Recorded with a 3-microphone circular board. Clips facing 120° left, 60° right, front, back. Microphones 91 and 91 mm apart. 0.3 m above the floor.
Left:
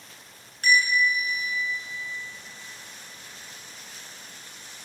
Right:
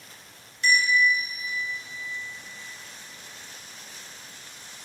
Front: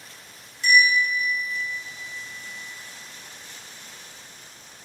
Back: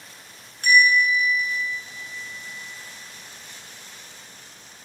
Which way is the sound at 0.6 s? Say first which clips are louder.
Even, back 2 dB; 155° left.